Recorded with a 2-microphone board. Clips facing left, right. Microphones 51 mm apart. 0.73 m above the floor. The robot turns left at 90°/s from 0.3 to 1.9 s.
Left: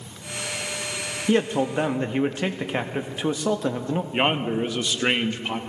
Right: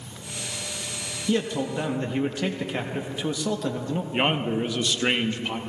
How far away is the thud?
I don't hear a thud.